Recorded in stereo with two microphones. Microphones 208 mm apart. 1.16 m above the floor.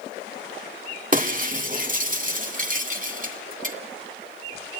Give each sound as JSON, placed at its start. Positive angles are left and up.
{"t": 1.1, "sound": "breaking glass", "side_deg": -40, "distance_m": 1.9}